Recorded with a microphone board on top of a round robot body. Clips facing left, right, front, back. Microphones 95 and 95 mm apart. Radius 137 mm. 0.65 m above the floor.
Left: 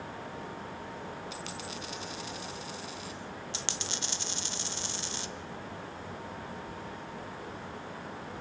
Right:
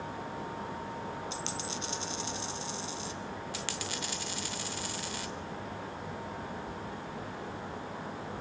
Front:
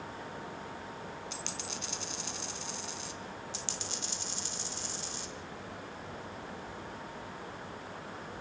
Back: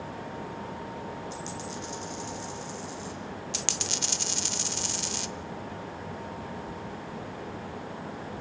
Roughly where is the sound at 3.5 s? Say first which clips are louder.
Right 2 dB, back 6 dB; behind left.